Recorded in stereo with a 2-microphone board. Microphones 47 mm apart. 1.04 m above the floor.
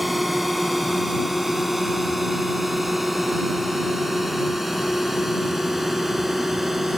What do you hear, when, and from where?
0.0 s a drone: 5° right (ahead or behind)